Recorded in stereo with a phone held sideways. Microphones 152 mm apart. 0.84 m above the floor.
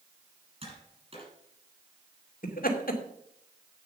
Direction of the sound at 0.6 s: 40° right (ahead or behind).